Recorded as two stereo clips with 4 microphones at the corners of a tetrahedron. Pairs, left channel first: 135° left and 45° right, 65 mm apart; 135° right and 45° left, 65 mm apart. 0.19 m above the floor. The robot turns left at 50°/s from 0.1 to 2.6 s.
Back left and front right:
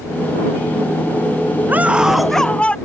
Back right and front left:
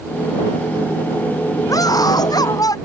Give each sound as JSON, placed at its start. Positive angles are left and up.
{"t": 1.7, "sound": "a scream", "azimuth_deg": -105}